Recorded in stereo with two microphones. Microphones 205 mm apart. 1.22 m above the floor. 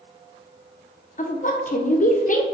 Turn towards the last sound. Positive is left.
turn(degrees=40)  # may be behind; listen again after turning